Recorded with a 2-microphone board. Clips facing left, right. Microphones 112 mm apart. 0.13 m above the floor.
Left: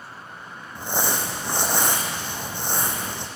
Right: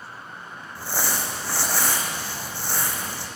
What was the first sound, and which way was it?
Crumpling, 20° left (ahead or behind).